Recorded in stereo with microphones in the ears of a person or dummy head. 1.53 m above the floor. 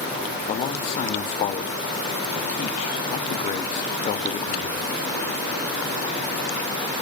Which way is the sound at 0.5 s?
40° left (ahead or behind).